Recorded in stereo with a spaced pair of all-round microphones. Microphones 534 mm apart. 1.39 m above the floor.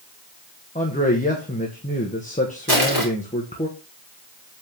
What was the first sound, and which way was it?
A man speaking, 15° left (ahead or behind).